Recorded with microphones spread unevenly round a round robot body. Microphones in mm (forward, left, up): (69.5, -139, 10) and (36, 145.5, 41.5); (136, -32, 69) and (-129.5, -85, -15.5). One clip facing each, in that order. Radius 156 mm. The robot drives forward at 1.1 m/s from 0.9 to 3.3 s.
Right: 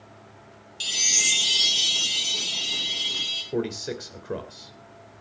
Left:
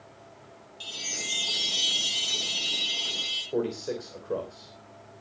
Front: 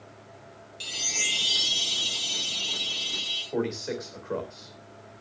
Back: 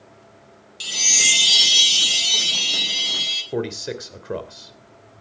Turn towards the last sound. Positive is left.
turn(degrees=-140)